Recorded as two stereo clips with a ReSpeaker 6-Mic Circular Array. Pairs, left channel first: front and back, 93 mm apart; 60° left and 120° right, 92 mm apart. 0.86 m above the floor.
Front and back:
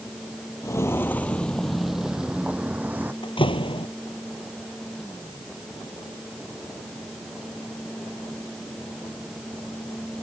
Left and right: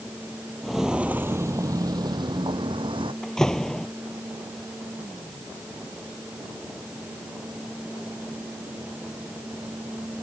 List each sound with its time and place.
0.6 s footsteps: 25° right; by 3.1 s 110° right
3.2 s a door slam: 25° right